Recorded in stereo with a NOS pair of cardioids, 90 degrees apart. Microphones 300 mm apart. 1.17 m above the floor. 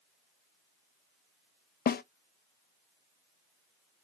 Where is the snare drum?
35° left, 0.6 m.